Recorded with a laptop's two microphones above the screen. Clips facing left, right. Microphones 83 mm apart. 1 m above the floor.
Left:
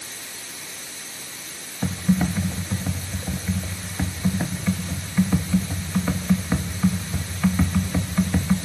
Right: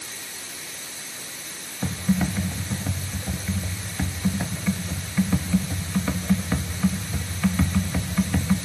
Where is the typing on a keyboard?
10° left (ahead or behind), 0.8 m.